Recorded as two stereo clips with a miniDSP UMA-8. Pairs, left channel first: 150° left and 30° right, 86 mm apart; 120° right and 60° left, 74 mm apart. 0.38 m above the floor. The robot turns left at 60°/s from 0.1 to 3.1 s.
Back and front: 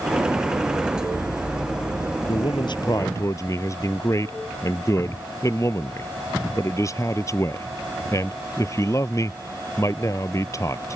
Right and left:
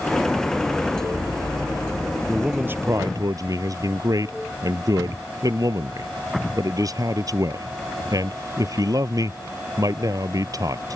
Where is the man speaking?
145° left; by 11.0 s 95° left.